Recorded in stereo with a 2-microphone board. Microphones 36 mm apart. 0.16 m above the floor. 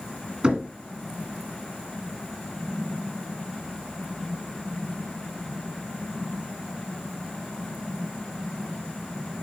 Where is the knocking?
25° right (ahead or behind), 1.8 m.